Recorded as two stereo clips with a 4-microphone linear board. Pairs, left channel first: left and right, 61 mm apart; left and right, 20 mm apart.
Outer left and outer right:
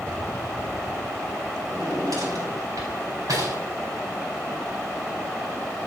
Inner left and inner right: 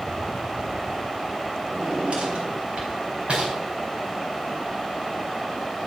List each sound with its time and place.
1.7 s a drawer: 70° right (ahead or behind), 3.5 m